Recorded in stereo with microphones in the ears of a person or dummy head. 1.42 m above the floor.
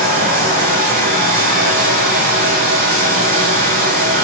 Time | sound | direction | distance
0.0 | running water | 45° right (ahead or behind) | 1.7 m